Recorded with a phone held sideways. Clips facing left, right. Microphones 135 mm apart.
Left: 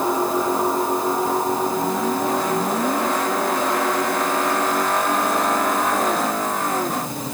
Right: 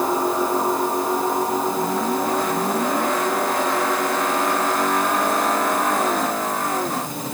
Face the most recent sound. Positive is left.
No sound to turn to.